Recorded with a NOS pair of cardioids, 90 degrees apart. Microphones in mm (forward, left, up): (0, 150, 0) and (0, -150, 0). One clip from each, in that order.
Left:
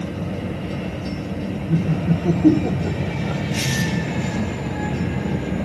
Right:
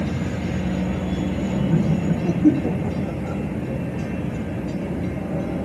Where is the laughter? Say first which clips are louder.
Even; straight ahead, 0.6 m; by 3.4 s 20° left, 1.5 m.